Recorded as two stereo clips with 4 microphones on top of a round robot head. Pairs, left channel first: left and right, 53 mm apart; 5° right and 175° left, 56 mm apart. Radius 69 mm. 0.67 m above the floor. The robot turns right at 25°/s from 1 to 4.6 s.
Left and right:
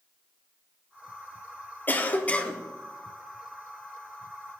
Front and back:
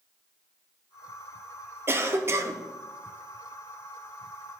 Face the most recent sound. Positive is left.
turn(degrees=-155)